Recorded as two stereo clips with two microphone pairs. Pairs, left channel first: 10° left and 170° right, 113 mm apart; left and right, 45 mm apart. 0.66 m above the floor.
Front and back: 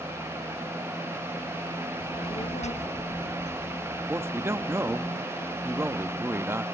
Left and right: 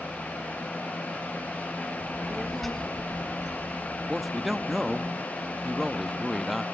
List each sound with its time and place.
2.0 s a child speaking: 30° right, 1.0 m; by 5.1 s 100° left, 2 m
4.1 s a man speaking: 175° right, 0.6 m